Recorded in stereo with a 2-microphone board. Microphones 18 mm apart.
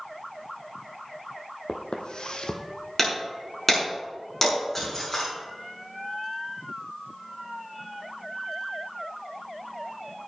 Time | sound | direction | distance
1.7 | footsteps | 50° left (ahead or behind) | 1.4 m
3.0 | breaking glass | 15° left (ahead or behind) | 5.5 m